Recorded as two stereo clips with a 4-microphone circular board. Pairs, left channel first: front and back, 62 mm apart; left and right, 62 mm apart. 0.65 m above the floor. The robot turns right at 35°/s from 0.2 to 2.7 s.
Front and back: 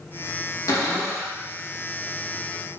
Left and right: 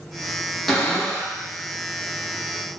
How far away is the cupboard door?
About 0.7 m.